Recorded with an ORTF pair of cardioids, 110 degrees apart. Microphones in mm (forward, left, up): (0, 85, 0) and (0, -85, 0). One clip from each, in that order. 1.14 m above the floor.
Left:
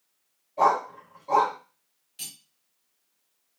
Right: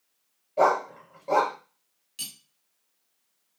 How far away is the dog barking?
About 1.9 m.